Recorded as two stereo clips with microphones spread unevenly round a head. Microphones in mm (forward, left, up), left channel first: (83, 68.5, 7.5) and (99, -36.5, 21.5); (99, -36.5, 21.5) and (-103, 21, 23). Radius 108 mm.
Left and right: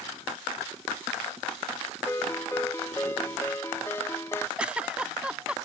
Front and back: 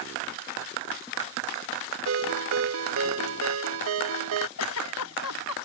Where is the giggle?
5° right.